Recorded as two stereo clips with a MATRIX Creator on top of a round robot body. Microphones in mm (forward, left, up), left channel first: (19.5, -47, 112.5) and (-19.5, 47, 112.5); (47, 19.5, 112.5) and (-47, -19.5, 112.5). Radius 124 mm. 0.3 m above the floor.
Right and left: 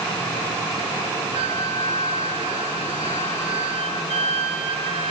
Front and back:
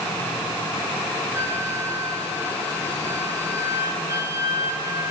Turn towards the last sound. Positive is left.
turn(degrees=140)